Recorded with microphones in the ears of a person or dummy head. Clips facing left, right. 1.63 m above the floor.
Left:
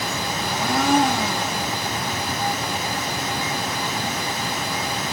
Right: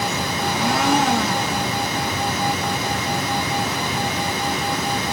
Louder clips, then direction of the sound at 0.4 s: Right 2 dB; 60° right (ahead or behind).